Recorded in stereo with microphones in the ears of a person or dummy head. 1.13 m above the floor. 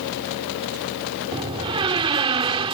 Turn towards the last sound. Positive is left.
turn(degrees=-30)  # may be behind; listen again after turning